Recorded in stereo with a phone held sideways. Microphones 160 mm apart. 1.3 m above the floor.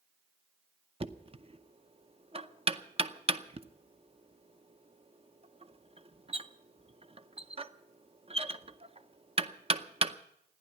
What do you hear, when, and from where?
1.0 s knocking: 35° right (ahead or behind), 0.7 m